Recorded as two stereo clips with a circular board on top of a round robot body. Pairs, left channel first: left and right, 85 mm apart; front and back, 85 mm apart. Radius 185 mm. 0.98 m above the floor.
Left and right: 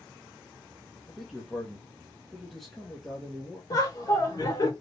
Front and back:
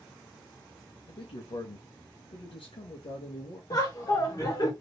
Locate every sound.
1.1 s a man speaking: straight ahead, 1.1 m
3.7 s laughter: 45° left, 2 m